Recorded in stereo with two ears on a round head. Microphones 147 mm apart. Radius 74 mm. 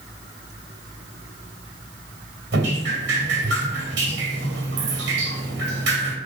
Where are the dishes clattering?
No dishes clattering in this recording.